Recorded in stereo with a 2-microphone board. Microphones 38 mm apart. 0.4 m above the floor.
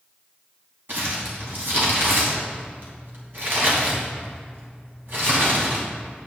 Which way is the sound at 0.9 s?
60° right (ahead or behind).